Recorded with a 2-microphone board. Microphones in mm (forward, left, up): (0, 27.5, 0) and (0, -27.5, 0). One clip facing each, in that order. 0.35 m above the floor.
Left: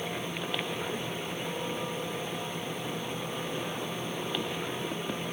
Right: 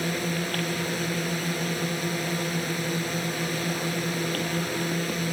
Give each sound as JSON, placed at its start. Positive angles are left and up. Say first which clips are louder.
{"t": 0.0, "sound": "a drone", "louder": "right 6 dB", "side_deg": -75}